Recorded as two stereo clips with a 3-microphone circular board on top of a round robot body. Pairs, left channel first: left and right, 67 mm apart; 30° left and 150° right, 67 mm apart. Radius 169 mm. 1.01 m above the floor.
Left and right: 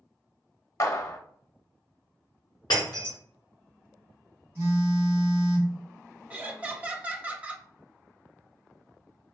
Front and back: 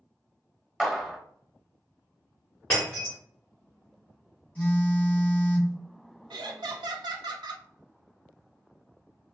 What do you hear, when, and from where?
0.8 s a clap: 125° left, 0.8 m
2.7 s breaking glass: 100° left, 0.6 m
4.5 s a phone buzzing: 40° right, 1.6 m
6.3 s laughter: 160° right, 0.6 m